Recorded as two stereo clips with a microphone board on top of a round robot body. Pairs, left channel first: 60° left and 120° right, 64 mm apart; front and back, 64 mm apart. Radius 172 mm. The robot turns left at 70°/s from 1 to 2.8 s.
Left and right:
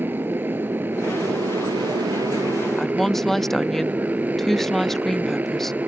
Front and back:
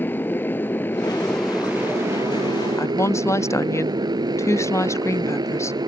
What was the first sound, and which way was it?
A motorcycle, 60° right.